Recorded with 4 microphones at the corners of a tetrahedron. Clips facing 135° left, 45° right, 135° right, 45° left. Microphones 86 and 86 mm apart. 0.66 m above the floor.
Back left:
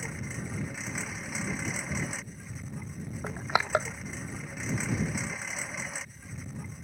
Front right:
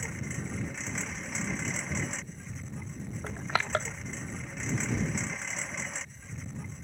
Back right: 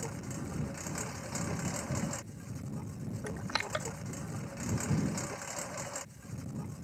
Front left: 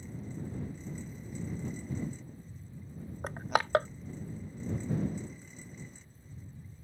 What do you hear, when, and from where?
0.0 s a lawn mower: 140° right
3.2 s crushing: 70° left